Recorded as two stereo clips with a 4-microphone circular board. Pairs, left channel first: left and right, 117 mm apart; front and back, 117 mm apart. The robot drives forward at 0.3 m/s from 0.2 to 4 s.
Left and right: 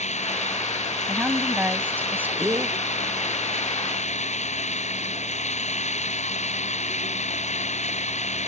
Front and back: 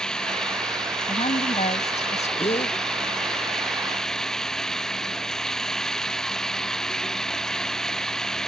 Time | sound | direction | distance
0.0 | running water | 85° left | ?
1.1 | a woman speaking | 15° right | ?
2.4 | a gasp | 30° right | ?